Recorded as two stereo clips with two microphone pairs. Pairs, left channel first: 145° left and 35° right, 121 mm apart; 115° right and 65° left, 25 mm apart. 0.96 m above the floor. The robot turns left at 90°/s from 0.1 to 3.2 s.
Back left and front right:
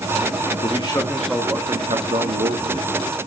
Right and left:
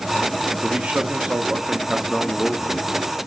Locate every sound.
0.6 s a man speaking: 115° left, 2 m; by 2.9 s 85° right, 2 m